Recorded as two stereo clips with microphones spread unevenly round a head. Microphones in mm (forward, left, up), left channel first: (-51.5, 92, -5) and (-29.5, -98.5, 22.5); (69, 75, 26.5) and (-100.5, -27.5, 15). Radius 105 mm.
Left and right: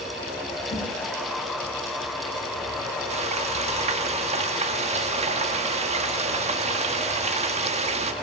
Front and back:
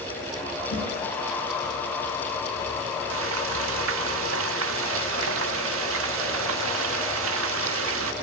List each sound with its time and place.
0.7 s a whoosh: 45° left, 8 m
3.1 s frying: 130° right, 1.5 m